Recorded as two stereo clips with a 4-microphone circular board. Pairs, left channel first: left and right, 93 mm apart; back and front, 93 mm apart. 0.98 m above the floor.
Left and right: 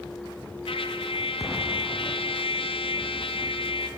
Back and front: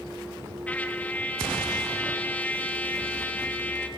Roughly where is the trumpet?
Left.